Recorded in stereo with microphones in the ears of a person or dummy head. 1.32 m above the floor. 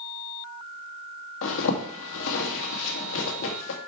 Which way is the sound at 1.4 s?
75° left (ahead or behind).